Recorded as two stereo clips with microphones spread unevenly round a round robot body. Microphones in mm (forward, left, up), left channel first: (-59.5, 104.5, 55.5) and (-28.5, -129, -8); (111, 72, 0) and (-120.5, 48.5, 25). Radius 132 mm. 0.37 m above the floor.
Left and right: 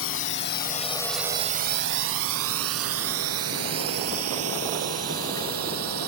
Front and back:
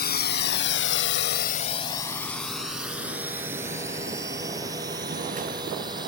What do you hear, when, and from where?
0.0 s a drone: 55° left; by 6.1 s 100° right